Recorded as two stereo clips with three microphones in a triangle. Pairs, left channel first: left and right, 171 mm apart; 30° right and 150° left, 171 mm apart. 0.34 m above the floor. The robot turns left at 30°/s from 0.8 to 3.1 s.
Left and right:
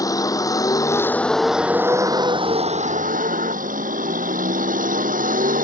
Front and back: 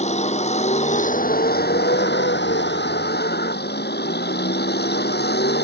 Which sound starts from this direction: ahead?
A vehicle, at 0.0 s.